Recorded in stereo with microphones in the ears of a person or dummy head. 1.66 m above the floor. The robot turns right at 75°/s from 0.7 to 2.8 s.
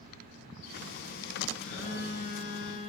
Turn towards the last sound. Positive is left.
turn(degrees=125)